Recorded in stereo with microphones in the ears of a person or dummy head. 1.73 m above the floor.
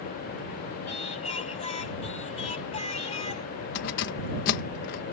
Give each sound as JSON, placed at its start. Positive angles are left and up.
{"t": 0.9, "sound": "singing", "side_deg": 35}
{"t": 3.8, "sound": "keys jangling", "side_deg": 55}